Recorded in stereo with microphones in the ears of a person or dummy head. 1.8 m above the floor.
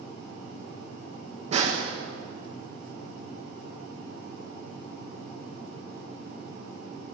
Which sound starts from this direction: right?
A snare drum, at 1.5 s.